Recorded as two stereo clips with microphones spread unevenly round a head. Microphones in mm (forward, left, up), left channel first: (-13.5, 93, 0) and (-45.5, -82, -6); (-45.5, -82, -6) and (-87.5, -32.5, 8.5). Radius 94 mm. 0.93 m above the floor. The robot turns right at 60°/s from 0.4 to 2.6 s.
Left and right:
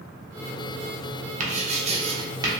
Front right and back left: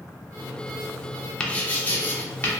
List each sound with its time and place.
1.4 s writing: 100° right, 0.6 m; by 2.5 s 35° right, 0.6 m